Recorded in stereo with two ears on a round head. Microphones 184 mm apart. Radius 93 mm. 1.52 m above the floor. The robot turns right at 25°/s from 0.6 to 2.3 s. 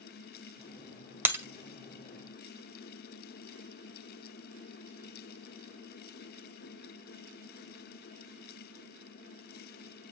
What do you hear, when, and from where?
1.2 s breaking glass: 10° right (ahead or behind), 1.5 m; by 1.4 s 15° right (ahead or behind), 1.5 m